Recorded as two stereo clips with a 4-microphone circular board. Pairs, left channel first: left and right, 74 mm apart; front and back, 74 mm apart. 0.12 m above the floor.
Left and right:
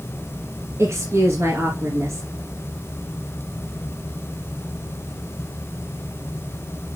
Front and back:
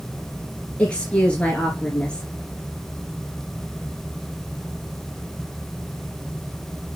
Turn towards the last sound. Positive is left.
turn(degrees=-70)